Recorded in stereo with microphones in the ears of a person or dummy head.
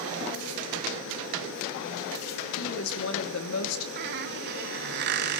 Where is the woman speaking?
75° left (ahead or behind), 3 m.